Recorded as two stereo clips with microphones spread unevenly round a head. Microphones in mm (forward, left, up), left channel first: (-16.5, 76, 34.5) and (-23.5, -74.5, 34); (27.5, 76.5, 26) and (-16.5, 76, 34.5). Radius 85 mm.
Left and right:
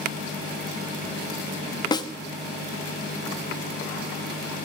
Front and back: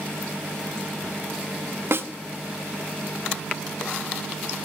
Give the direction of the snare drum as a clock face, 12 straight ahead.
7 o'clock.